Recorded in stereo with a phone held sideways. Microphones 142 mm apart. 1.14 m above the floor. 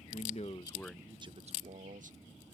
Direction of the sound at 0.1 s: 60° left (ahead or behind).